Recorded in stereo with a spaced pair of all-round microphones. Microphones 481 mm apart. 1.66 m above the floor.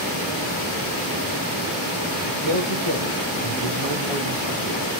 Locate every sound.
2.3 s a man speaking: 65° right (ahead or behind), 1.8 m